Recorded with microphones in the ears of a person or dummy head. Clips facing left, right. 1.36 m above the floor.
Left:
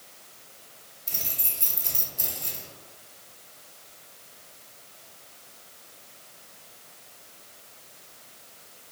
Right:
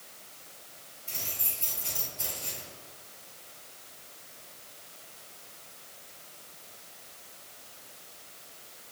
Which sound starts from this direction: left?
Keys jangling, at 1.1 s.